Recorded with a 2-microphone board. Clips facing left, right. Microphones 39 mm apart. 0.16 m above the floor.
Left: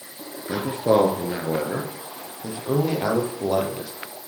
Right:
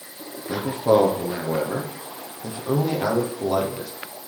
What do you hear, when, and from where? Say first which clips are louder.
0.5 s a man speaking: right 1 dB; 10° left (ahead or behind), 2.5 m